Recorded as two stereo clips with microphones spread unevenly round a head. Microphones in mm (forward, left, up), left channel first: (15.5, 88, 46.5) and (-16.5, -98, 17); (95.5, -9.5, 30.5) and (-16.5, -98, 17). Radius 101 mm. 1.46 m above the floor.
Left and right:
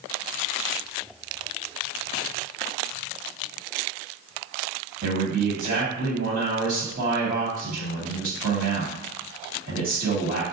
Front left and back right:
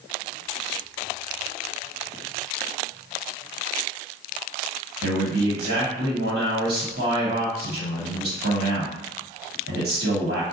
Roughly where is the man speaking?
Behind right.